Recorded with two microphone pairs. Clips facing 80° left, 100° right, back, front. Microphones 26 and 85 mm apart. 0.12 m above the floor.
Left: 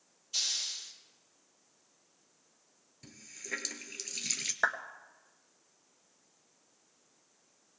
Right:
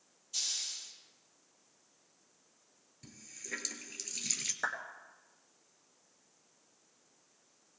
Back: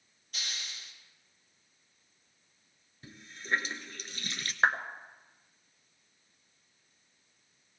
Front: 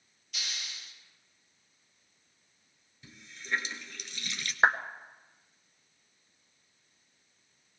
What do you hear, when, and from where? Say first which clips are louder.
0.3 s a hiss: left 4 dB, even; 140° left, 3 m
3.0 s a running tap: left 3 dB, back 2 dB; 150° left, 1.1 m
4.6 s a clap: left 6 dB, front 2 dB; 65° left, 1.3 m